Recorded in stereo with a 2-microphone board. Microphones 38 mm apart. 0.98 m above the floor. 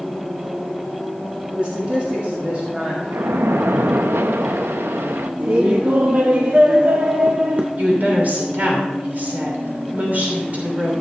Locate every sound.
1.6 s a man speaking: 30° right (ahead or behind), 1.9 m
3.1 s a splash: 80° right, 0.7 m
5.4 s laughter: 40° right (ahead or behind), 0.7 m
7.8 s a woman speaking: 45° right (ahead or behind), 3 m